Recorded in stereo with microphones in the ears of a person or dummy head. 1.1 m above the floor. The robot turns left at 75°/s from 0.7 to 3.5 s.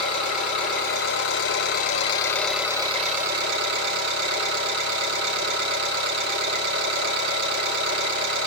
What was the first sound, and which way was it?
An engine running, 135° left.